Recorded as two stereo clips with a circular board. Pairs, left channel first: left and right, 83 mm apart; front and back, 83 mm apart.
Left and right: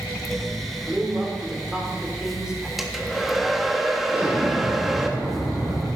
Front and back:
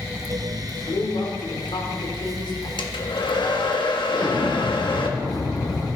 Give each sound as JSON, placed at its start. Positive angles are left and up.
{"t": 0.6, "sound": "a man speaking", "azimuth_deg": -10, "distance_m": 3.5}
{"t": 2.8, "sound": "a hair dryer", "azimuth_deg": -5, "distance_m": 1.5}
{"t": 4.1, "sound": "an explosion", "azimuth_deg": -15, "distance_m": 7.0}